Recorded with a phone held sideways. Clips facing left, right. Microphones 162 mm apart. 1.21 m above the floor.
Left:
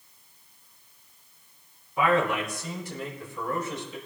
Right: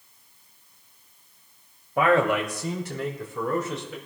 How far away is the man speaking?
About 2.5 m.